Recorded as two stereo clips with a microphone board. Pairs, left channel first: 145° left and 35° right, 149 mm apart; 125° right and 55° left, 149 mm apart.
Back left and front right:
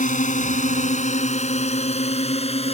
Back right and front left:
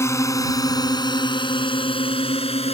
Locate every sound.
0.0 s a drone: 165° left; by 2.8 s 170° right